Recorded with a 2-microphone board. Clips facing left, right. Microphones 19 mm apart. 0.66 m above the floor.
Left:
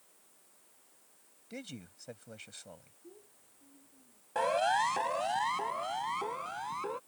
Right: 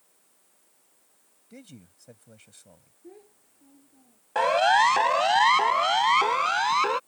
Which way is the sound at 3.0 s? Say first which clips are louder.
Right 9 dB; 70° right (ahead or behind).